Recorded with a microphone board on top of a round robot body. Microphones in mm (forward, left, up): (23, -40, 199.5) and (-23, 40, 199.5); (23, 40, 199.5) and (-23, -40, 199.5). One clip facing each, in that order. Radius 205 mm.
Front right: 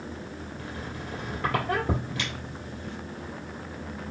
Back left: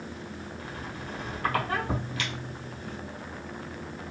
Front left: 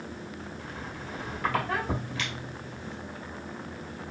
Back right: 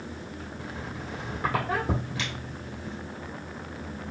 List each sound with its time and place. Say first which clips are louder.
0.6 s a squeak: front right 1 dB, back right 2 dB; 60° right, 1.4 m